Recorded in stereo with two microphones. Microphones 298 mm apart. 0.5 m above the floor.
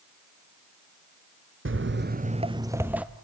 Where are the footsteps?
40° right (ahead or behind), 0.6 m; by 3.0 s 5° right (ahead or behind), 1.0 m.